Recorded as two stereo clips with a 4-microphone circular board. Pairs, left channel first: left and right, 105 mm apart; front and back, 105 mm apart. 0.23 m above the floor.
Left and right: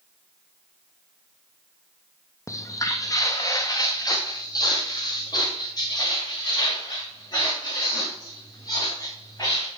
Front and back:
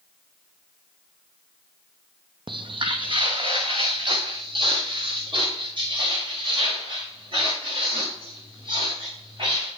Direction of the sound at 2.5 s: 145° left.